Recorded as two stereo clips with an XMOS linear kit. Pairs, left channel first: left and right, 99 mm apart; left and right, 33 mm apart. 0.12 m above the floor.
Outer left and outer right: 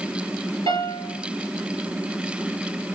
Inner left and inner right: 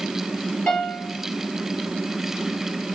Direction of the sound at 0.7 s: 45° left (ahead or behind).